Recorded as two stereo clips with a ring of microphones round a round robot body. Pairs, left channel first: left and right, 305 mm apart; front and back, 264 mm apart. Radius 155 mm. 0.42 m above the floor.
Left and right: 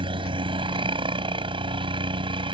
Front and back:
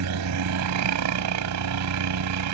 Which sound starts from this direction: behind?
A helicopter, at 0.0 s.